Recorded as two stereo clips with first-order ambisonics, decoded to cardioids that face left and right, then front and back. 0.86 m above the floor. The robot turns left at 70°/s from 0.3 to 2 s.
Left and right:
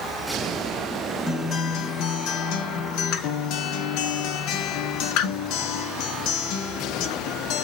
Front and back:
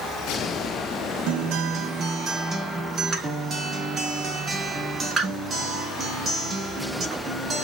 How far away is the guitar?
About 0.6 m.